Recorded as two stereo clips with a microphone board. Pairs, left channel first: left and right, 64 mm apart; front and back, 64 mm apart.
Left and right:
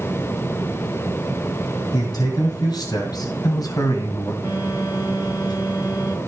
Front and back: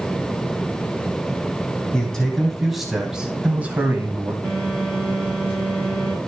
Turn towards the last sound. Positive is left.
turn(degrees=65)